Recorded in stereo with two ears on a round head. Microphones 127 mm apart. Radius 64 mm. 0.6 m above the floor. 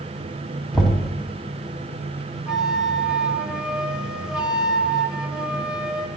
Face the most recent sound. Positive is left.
turn(degrees=-5)  # may be behind; listen again after turning